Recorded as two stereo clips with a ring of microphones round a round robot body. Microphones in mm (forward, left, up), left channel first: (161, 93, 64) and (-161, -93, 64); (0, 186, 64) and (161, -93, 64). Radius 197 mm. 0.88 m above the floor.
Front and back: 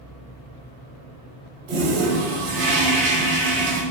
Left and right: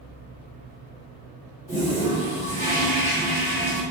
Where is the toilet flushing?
155° right, 1.0 m.